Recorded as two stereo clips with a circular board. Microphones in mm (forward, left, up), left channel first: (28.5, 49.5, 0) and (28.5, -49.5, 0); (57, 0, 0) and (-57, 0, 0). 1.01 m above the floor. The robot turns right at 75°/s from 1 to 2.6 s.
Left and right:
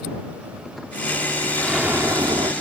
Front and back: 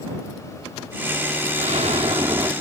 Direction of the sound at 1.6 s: 175° left.